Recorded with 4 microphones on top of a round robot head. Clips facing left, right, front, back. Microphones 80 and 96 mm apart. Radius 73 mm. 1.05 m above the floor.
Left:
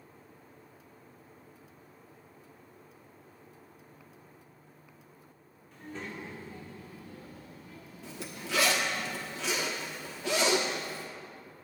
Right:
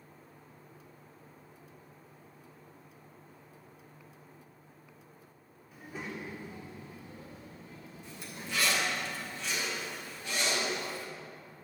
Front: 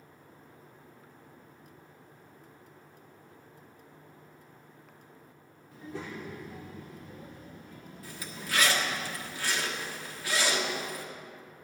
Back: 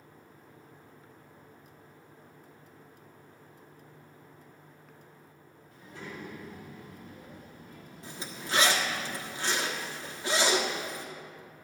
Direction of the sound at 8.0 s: 115° left.